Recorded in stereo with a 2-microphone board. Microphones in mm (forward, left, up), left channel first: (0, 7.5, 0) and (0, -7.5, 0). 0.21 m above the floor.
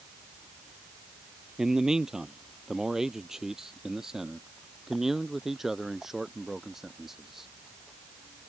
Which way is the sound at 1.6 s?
40° right (ahead or behind).